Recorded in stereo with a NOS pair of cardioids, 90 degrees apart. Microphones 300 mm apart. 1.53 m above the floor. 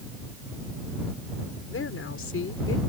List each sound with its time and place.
1.7 s a woman speaking: 45° left